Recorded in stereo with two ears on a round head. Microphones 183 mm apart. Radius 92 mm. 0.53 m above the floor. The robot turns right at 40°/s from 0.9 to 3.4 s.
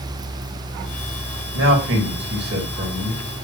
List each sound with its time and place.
1.5 s a man speaking: 100° right, 3 m; by 3.2 s 35° right, 3 m